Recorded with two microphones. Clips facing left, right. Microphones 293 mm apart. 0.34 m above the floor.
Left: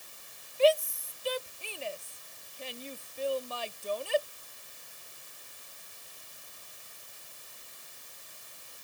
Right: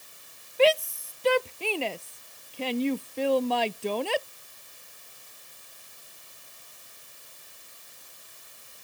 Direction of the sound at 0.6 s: 80° right.